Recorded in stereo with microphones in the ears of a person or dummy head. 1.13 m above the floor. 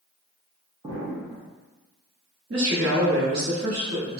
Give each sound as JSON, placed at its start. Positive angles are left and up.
{"t": 0.8, "sound": "an explosion", "side_deg": -35, "distance_m": 0.8}
{"t": 2.5, "sound": "a woman speaking", "side_deg": -50, "distance_m": 1.1}